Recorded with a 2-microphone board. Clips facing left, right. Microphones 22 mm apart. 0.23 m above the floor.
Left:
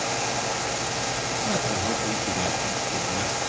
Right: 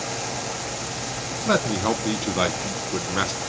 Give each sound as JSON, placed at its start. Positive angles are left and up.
{"t": 1.5, "sound": "a man speaking", "side_deg": -55, "distance_m": 2.0}